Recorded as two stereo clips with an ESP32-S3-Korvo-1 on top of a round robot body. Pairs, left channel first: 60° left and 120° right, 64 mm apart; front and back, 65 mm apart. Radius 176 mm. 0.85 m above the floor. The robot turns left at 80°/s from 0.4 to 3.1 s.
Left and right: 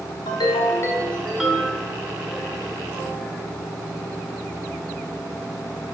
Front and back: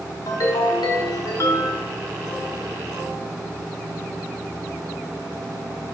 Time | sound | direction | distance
0.3 | a ringtone | 45° left | 1.1 m